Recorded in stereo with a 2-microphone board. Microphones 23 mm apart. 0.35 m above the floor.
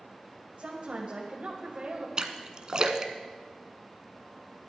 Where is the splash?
30° right (ahead or behind), 0.9 m.